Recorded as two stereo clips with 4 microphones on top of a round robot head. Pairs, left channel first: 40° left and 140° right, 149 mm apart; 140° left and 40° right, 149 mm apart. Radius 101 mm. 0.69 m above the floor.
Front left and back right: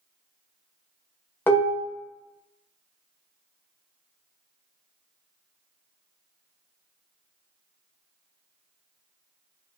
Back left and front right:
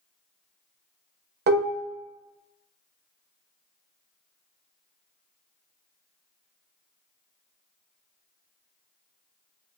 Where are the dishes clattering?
35° right, 0.5 m.